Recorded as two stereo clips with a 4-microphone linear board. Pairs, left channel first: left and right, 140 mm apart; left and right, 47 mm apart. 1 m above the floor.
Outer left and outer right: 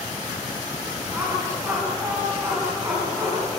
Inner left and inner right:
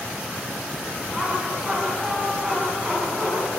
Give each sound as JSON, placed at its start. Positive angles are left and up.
{"t": 1.1, "sound": "laughter", "side_deg": -20, "distance_m": 8.5}